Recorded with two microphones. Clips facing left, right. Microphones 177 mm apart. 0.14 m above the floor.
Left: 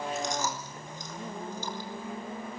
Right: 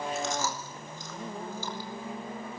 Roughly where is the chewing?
Centre.